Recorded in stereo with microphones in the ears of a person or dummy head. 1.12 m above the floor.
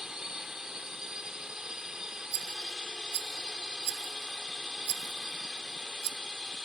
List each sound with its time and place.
0.0 s a drone: centre (ahead or behind)
2.3 s a rattle: 70° right (ahead or behind)